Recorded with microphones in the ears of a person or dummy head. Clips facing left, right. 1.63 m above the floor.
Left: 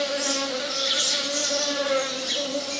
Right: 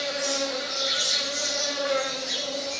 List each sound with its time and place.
0.0 s an insect: 50° left (ahead or behind), 2.5 m